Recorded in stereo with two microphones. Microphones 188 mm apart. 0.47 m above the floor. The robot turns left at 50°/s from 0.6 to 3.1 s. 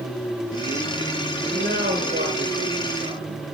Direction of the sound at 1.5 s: 55° right.